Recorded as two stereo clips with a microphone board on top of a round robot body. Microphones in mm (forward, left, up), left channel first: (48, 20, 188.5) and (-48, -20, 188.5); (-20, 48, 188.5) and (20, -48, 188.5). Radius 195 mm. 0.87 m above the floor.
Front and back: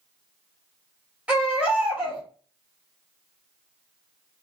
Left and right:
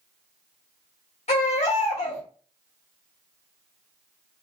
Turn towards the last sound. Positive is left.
turn(degrees=125)